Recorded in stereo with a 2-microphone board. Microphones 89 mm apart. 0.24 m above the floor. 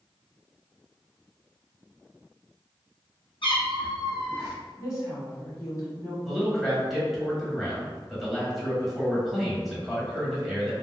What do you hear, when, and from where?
3.4 s a cat meowing: 85° left, 1.4 m; by 4.5 s 35° left (ahead or behind), 1.7 m
4.8 s a woman speaking: 35° left (ahead or behind), 1.6 m
6.2 s a man speaking: centre (ahead or behind), 1.0 m